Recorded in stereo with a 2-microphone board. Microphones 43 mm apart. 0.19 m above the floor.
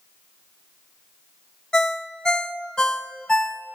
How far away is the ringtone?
About 0.5 m.